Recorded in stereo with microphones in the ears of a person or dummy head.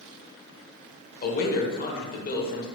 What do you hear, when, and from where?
1.2 s a man speaking: 45° left (ahead or behind), 1.1 m